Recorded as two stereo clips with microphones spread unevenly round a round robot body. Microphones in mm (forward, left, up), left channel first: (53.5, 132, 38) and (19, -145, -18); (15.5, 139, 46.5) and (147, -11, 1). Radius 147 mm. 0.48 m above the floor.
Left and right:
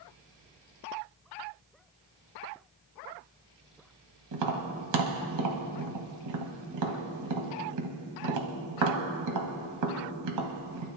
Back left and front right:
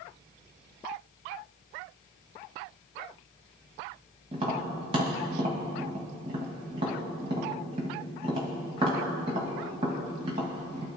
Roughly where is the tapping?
Behind right.